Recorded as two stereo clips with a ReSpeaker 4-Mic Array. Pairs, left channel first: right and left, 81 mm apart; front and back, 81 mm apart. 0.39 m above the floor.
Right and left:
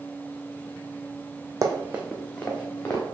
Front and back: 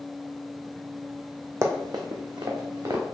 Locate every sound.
1.6 s running footsteps: 130° left, 0.8 m; by 3.0 s 150° right, 1.7 m